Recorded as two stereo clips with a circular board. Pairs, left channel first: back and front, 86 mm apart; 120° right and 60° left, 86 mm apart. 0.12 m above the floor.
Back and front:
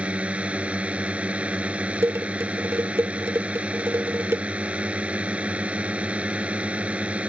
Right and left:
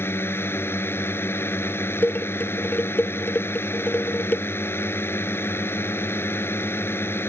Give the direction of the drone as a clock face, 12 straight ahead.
2 o'clock.